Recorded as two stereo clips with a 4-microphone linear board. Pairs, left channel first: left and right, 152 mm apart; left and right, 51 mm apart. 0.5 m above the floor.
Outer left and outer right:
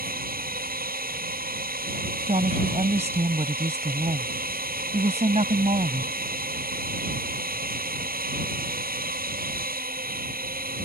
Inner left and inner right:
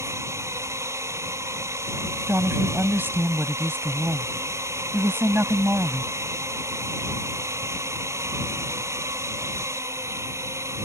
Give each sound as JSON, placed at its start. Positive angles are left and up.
{"t": 0.0, "sound": "a drone", "side_deg": -70}
{"t": 2.3, "sound": "a woman speaking", "side_deg": -45}